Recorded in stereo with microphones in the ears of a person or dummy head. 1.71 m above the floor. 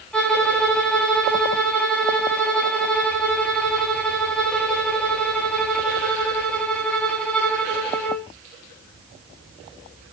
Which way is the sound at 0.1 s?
5° left (ahead or behind).